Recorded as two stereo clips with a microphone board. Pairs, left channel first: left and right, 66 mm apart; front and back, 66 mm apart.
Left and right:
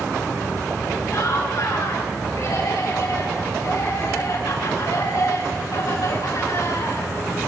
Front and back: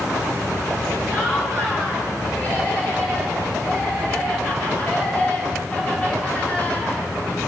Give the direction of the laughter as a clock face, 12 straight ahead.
10 o'clock.